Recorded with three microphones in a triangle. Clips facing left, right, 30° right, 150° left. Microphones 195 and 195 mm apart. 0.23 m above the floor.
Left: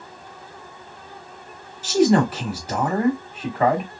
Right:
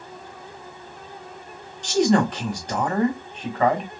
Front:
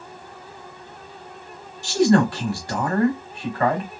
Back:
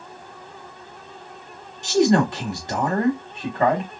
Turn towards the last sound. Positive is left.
turn(degrees=165)